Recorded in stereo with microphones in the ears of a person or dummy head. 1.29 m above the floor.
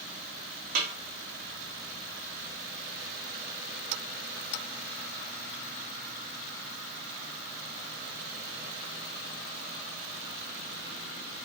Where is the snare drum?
50° right (ahead or behind), 1.6 m.